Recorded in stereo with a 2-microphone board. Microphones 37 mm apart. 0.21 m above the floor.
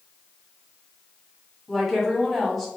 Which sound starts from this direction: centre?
A woman speaking, at 1.7 s.